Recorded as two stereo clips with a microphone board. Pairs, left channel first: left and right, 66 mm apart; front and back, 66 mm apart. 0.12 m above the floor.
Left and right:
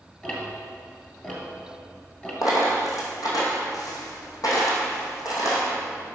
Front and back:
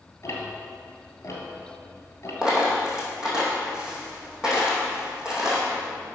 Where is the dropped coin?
105° left, 2.5 m.